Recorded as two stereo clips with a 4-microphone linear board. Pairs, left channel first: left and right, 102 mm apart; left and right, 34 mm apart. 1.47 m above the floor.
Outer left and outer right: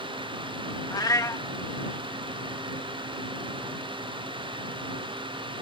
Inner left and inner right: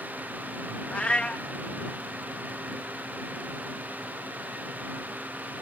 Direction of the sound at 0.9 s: 40° left (ahead or behind).